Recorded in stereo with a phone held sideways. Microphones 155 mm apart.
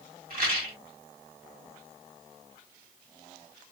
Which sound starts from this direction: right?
A rattle, at 0.3 s.